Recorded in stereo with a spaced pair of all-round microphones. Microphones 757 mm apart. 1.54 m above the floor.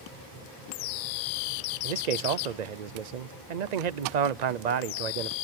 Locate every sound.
0.0 s a machine running: 25° right (ahead or behind), 6 m
1.8 s a man speaking: 65° right (ahead or behind), 0.6 m